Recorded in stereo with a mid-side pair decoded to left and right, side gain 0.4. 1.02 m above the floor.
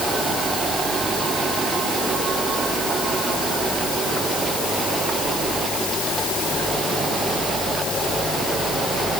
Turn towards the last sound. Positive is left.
No sound to turn to.